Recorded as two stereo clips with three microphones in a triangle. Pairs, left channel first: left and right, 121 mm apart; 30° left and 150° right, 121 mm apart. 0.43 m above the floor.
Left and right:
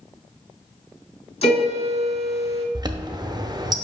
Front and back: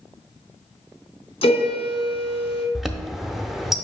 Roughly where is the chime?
Ahead right.